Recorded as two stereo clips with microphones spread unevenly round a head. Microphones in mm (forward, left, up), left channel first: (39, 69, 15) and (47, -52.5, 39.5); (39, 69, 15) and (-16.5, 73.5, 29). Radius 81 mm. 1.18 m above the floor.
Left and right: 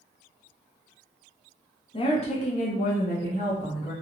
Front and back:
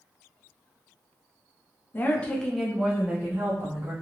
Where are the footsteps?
No footsteps in this recording.